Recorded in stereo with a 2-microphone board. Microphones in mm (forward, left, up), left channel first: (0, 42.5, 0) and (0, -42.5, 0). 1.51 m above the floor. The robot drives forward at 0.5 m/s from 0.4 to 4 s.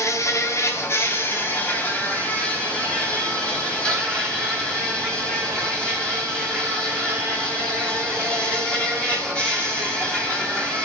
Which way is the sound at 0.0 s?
35° left (ahead or behind).